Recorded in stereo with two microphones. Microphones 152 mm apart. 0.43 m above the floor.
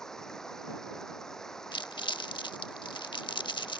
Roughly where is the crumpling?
Left.